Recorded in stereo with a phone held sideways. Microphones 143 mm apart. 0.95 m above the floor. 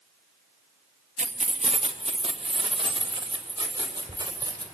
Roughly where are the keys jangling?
Right.